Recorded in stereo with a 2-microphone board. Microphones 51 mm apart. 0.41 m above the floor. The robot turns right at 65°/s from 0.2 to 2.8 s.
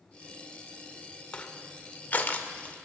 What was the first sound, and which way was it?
Crushing, 20° left (ahead or behind).